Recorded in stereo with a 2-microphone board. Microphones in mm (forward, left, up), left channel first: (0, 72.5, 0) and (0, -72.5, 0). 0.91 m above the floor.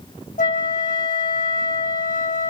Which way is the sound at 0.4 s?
70° left (ahead or behind).